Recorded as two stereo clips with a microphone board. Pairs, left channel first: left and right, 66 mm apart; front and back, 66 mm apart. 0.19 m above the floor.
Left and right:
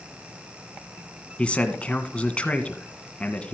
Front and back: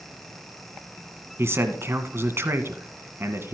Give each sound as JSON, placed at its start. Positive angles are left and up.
{"t": 1.4, "sound": "a man speaking", "azimuth_deg": 155, "distance_m": 1.5}